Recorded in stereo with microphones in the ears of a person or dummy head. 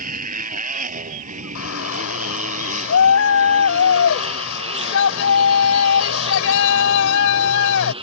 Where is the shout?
70° left (ahead or behind).